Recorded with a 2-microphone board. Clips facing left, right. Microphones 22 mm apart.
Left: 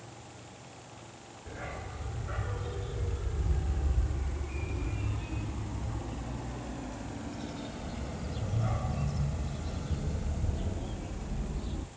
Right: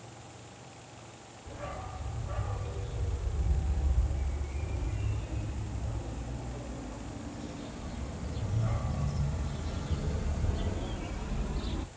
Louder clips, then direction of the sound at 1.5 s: Even; 85° left.